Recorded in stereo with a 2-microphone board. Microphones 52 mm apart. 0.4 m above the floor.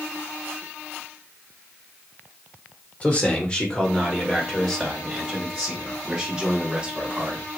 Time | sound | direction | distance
3.0 | a man speaking | 30° left (ahead or behind) | 1.0 m